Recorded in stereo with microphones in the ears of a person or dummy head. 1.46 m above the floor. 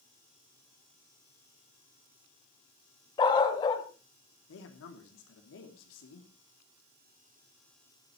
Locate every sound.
3.2 s a dog barking: 30° left (ahead or behind), 1.8 m
4.5 s a man speaking: 70° left (ahead or behind), 2.5 m